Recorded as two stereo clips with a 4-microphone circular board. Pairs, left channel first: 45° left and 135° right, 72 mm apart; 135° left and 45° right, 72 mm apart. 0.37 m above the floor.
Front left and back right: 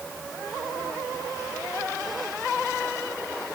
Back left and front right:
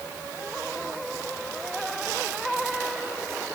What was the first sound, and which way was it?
Only background noise.